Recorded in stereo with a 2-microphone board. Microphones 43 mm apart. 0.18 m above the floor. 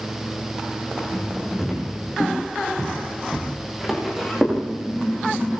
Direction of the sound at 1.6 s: Centre (ahead or behind).